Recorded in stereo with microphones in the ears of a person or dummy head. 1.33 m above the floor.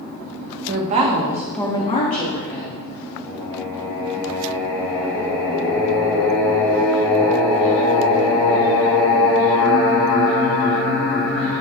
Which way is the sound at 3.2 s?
20° left (ahead or behind).